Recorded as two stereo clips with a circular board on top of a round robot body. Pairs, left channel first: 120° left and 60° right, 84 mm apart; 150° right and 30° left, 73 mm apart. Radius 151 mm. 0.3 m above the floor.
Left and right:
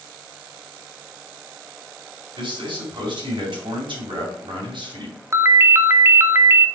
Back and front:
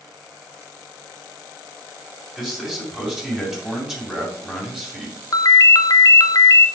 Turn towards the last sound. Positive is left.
turn(degrees=-120)